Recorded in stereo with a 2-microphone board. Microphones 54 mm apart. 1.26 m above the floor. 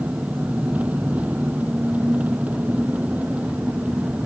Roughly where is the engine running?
Right.